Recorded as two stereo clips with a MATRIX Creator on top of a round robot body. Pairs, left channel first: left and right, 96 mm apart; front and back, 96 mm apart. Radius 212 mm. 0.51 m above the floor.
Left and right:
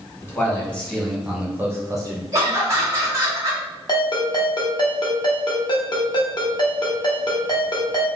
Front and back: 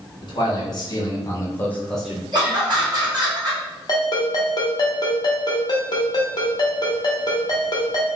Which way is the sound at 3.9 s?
45° left.